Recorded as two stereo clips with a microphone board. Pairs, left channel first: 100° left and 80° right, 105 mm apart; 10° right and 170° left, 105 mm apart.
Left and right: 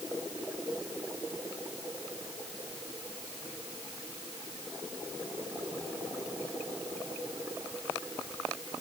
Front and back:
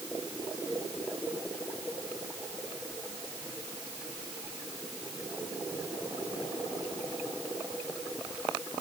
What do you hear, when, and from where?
Only background noise.